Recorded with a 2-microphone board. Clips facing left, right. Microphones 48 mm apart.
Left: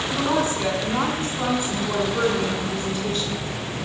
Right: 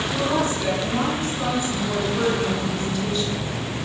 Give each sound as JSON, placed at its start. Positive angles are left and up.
{"t": 0.1, "sound": "a woman speaking", "side_deg": 50, "distance_m": 7.5}